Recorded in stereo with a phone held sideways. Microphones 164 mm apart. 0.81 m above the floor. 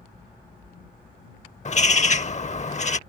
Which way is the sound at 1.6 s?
45° left (ahead or behind).